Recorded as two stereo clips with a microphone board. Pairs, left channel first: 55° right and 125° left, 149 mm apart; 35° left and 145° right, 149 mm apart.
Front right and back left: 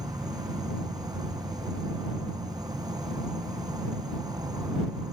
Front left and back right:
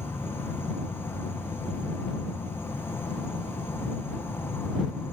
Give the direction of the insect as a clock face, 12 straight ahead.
9 o'clock.